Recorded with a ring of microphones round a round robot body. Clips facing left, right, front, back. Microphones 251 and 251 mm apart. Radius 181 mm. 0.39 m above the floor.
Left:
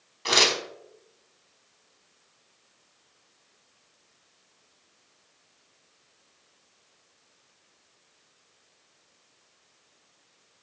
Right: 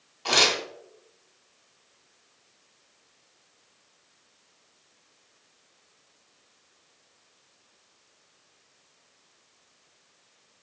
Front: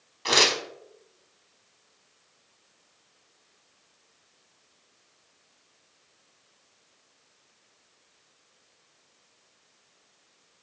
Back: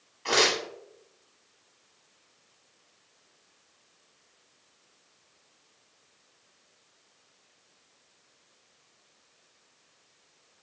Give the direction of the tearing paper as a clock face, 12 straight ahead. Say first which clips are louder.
Even, even; 11 o'clock.